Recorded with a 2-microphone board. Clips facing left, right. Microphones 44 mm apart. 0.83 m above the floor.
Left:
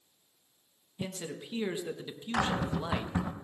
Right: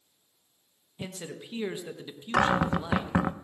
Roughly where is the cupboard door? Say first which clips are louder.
Right 6 dB; right.